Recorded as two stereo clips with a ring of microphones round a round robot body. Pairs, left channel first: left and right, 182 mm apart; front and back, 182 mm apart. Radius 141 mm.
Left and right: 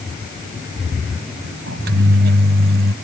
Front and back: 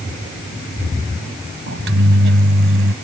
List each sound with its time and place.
1.7 s a microwave: 140° right